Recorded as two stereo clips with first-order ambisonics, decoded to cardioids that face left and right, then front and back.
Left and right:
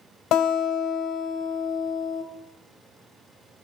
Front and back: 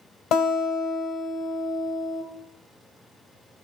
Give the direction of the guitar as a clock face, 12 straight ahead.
11 o'clock.